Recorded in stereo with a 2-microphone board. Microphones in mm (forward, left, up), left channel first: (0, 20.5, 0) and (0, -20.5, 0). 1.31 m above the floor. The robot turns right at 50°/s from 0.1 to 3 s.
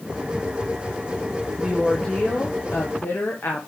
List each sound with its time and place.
1.6 s a woman speaking: 5° right, 1.0 m; by 3.7 s 65° left, 1.0 m